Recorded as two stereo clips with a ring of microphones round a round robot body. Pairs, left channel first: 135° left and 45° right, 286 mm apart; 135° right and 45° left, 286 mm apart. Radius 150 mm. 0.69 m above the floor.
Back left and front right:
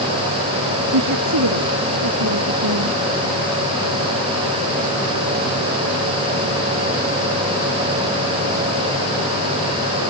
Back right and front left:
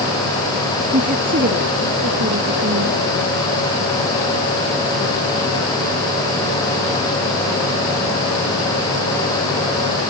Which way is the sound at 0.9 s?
20° right.